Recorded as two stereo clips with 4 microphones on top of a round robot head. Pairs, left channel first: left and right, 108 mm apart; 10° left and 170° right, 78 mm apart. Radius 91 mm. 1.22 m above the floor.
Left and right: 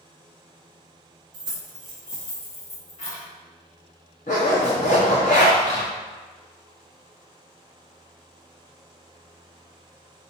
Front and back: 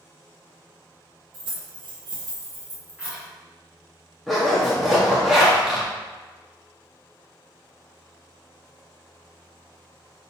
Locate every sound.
1.3 s keys jangling: 135° right, 1.0 m; by 3.2 s 115° left, 1.9 m
4.3 s a zipper: 100° left, 0.8 m